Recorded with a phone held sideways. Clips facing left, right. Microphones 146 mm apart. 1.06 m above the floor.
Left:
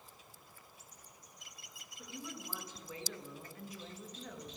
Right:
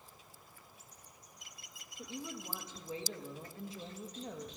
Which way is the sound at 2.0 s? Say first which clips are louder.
Right 3 dB; 25° right (ahead or behind).